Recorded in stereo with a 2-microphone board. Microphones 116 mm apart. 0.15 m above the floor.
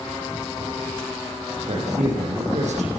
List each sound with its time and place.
1.7 s a man speaking: 75° right (ahead or behind), 9 m